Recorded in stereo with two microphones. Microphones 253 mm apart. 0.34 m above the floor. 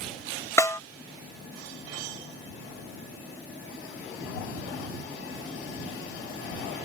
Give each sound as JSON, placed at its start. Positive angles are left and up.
{"t": 0.6, "sound": "a snare drum", "side_deg": 10}